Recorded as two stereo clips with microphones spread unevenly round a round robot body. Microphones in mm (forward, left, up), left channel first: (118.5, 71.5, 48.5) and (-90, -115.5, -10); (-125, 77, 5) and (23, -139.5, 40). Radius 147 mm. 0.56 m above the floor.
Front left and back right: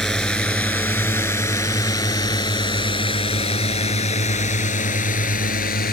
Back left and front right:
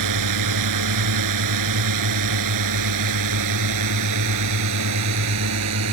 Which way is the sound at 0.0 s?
45° right.